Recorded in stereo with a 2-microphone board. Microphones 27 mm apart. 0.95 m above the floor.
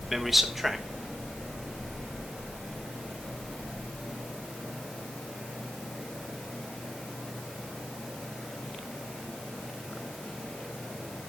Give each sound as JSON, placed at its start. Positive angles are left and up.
{"t": 0.1, "sound": "a man speaking", "side_deg": -5, "distance_m": 1.0}